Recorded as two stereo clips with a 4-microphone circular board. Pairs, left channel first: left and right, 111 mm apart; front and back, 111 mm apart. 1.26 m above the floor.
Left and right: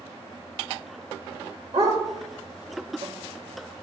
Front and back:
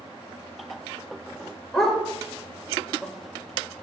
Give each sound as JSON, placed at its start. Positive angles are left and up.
{"t": 1.7, "sound": "a dog barking", "azimuth_deg": -90, "distance_m": 2.0}